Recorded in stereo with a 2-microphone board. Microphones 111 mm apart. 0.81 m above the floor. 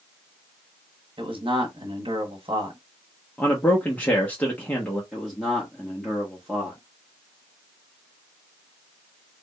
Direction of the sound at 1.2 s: 50° right (ahead or behind).